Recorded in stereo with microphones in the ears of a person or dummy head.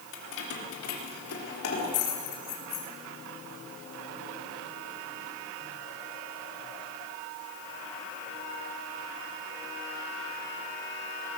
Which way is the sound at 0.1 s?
65° left (ahead or behind).